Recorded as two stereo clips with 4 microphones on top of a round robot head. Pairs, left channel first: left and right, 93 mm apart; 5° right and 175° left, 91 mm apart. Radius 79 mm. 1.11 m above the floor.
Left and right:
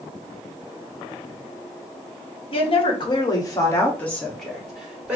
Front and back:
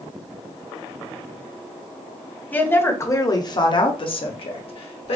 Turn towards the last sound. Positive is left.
turn(degrees=-10)